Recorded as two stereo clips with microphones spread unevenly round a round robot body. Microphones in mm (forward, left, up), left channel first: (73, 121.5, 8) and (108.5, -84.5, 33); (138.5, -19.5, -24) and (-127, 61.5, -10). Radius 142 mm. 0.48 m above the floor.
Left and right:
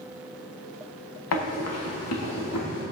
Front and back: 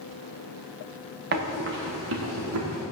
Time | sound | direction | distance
1.3 | running footsteps | 110° left | 2.5 m